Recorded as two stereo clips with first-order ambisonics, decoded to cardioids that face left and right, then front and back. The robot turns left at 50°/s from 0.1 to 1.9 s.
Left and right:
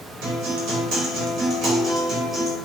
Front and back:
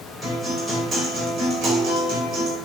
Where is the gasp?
I don't hear a gasp.